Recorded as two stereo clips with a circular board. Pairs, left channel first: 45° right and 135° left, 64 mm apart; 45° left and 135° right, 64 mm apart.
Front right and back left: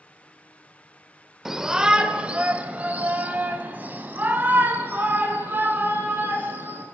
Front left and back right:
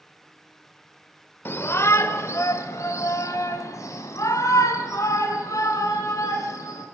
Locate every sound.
1.4 s a shout: 50° left, 1.0 m; by 6.8 s 75° left, 4.5 m